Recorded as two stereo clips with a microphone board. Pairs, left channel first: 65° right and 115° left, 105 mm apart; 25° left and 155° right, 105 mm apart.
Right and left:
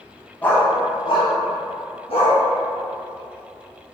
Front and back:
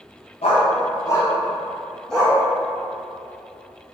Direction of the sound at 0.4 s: 5° left.